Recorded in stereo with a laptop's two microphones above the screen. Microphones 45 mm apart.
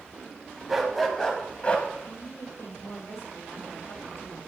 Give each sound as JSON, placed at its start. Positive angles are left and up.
{"t": 0.7, "sound": "a dog barking", "side_deg": -10, "distance_m": 1.4}
{"t": 2.0, "sound": "a woman speaking", "side_deg": 80, "distance_m": 4.0}